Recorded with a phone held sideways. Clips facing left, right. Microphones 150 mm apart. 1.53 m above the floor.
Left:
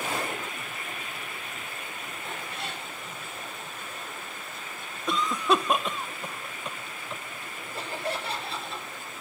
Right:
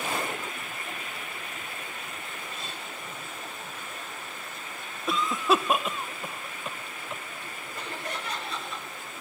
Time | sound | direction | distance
2.2 | a cat meowing | 75° left (ahead or behind) | 3 m
5.1 | a cough | 5° right (ahead or behind) | 1.1 m
7.7 | laughter | 30° left (ahead or behind) | 6.5 m